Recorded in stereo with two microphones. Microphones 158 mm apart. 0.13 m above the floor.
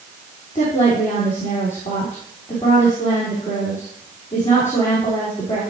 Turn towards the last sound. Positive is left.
turn(degrees=50)  # may be behind; listen again after turning